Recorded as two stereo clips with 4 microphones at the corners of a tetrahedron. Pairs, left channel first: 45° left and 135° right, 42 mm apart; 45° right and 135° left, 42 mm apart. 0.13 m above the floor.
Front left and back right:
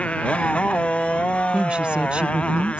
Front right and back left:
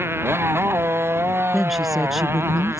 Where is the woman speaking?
145° right.